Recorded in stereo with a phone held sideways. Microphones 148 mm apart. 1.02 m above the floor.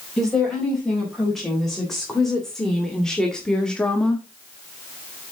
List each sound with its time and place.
0.2 s a woman speaking: centre (ahead or behind), 4.5 m; by 4.3 s 10° left (ahead or behind), 1.2 m